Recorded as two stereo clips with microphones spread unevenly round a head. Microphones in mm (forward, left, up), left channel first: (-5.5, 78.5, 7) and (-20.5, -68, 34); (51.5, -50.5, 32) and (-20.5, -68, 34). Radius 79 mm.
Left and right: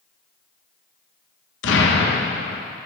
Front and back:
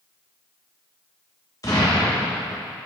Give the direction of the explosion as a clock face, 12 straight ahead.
9 o'clock.